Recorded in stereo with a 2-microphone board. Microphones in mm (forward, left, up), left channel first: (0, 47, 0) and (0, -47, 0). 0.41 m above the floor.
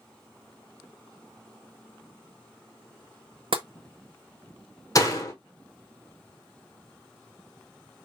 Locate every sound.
3.5 s tapping: 65° right (ahead or behind), 0.6 m
5.0 s a door slam: 40° left (ahead or behind), 1.1 m